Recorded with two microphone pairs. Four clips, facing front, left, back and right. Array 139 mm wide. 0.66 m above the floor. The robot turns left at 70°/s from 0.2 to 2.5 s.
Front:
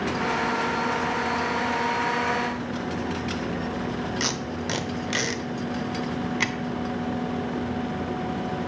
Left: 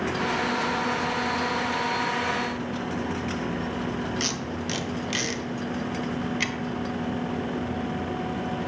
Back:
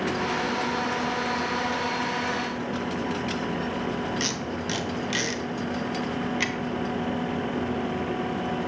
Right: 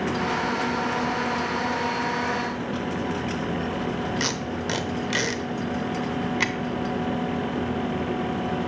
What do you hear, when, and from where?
4.2 s tape being pulled: 50° right, 0.5 m